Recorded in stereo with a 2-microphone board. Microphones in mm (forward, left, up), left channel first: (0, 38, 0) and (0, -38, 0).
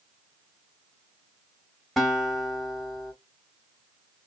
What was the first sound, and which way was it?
A guitar, 5° right (ahead or behind).